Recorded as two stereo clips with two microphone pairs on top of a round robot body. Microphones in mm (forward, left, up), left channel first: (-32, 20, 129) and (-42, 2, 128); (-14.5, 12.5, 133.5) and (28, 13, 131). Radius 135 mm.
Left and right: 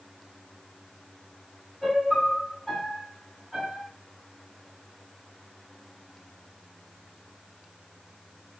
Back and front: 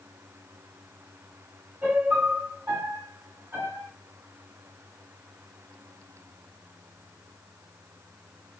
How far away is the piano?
About 2.5 m.